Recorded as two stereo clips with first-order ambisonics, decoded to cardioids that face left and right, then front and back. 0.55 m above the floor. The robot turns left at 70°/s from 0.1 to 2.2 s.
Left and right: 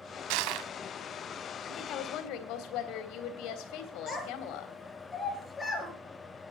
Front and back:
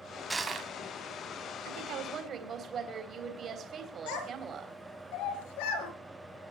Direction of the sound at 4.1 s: 10° left.